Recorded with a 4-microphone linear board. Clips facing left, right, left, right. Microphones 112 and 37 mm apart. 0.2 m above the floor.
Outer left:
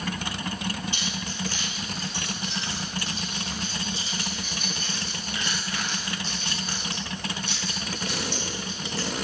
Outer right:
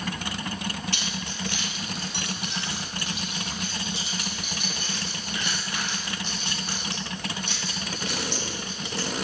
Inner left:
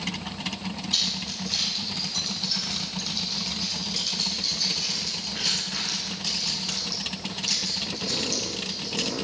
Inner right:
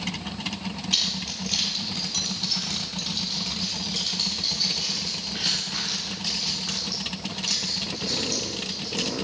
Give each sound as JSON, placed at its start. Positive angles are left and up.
{"t": 0.9, "sound": "keys jangling", "side_deg": -75, "distance_m": 3.5}